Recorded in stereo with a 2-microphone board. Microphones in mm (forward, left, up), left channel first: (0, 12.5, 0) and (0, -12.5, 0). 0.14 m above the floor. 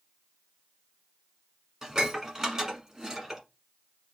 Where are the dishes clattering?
20° right (ahead or behind), 1.0 m.